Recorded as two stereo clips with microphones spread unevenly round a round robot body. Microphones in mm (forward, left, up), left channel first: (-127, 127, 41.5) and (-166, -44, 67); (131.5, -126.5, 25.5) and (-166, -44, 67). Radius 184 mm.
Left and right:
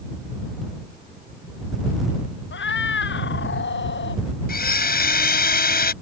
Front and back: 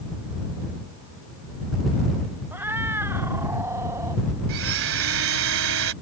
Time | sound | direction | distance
2.5 | a cat meowing | 80° left | ?
4.5 | a blender | 110° left | ?